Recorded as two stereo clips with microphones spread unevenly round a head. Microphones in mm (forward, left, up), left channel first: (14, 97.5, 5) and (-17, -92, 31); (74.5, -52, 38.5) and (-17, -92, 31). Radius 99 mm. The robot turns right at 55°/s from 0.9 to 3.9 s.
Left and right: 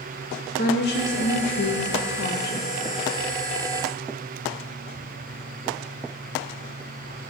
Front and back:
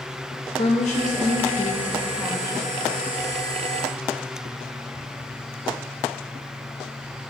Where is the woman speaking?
40° left, 0.9 m; by 2.6 s 135° left, 0.9 m.